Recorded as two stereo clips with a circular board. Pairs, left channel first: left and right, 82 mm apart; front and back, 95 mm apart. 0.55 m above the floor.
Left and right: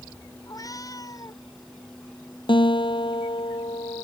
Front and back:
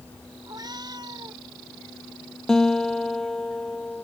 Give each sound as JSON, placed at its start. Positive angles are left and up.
{"t": 0.5, "sound": "a cat meowing", "azimuth_deg": 135}
{"t": 2.5, "sound": "a guitar", "azimuth_deg": 85}